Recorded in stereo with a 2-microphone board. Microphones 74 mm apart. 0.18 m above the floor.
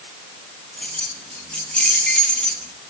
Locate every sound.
0.8 s keys jangling: 15° left (ahead or behind), 3 m